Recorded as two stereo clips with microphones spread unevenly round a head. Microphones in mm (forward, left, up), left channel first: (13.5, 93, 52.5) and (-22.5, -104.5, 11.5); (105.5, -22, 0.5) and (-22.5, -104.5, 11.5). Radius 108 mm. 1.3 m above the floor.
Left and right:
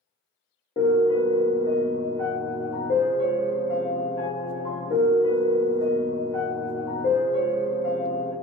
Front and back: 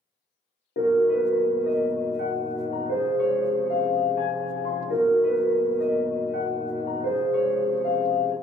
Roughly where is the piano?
Ahead left.